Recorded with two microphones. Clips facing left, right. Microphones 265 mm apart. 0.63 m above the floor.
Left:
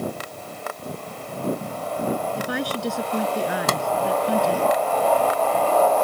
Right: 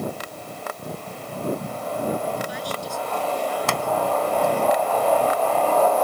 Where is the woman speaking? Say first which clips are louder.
Left 4 dB; 70° left (ahead or behind); by 4.7 s 80° left.